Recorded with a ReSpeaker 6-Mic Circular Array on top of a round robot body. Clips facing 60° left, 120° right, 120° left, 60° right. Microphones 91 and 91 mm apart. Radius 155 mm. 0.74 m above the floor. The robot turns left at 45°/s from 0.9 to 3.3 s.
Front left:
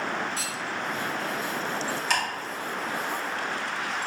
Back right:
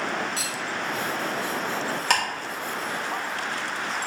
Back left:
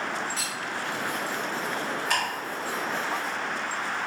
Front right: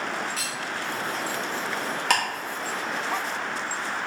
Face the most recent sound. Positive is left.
turn(degrees=-135)